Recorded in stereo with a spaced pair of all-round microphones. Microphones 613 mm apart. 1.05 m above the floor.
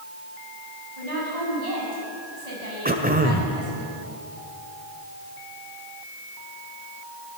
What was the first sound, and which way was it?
A woman speaking, 85° right.